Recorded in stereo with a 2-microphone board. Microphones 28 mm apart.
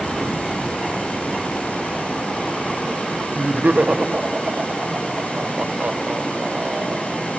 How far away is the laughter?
About 1.3 m.